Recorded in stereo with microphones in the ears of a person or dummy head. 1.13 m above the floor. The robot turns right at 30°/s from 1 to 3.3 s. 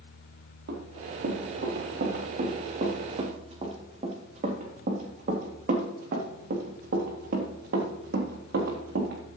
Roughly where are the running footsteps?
Right.